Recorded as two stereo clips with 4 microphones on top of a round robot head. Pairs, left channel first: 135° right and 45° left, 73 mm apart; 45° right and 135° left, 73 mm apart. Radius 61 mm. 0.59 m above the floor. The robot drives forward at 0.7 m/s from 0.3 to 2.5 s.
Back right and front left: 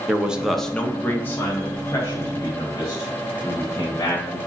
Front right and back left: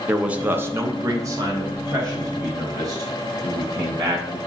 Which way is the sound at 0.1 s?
100° left.